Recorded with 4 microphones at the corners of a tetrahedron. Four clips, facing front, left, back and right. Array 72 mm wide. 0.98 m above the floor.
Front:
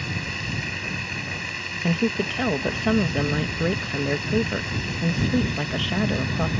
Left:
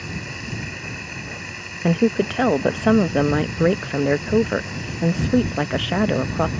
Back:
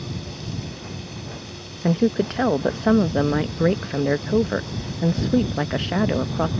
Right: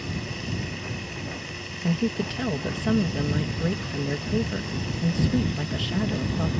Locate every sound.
0.0 s running water: 20° left
1.8 s a woman speaking: 115° left